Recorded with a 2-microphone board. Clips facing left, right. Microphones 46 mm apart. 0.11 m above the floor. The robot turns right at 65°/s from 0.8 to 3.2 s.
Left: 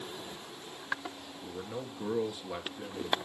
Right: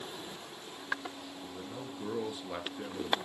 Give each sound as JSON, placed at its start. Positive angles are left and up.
{"t": 1.4, "sound": "a man speaking", "azimuth_deg": 120, "distance_m": 1.9}